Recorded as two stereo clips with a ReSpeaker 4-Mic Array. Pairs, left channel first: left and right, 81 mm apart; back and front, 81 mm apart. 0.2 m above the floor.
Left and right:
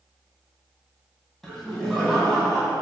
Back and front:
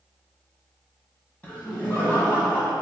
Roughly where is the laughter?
Behind.